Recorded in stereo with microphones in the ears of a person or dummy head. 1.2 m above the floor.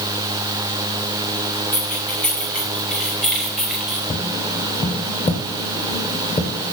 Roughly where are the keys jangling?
Centre.